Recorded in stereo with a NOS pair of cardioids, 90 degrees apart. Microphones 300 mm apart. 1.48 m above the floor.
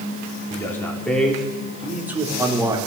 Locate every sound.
0.5 s a man speaking: 10° left, 3.5 m; by 2.8 s 10° right, 4 m